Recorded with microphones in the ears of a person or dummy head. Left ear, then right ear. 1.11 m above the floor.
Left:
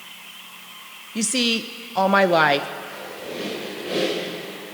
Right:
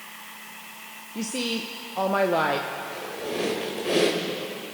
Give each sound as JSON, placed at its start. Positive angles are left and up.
{"t": 1.1, "sound": "a woman speaking", "side_deg": 50, "distance_m": 0.5}
{"t": 2.8, "sound": "a squeak", "side_deg": -25, "distance_m": 2.5}